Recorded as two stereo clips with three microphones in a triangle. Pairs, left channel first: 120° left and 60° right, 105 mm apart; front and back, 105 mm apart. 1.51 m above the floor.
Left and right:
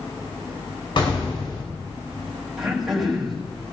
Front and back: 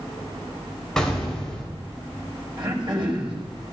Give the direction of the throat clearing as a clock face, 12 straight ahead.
5 o'clock.